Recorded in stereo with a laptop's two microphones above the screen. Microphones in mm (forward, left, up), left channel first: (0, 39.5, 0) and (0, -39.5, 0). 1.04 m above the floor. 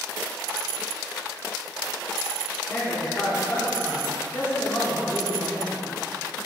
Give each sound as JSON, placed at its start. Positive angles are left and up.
{"t": 2.7, "sound": "a man speaking", "side_deg": 30, "distance_m": 2.5}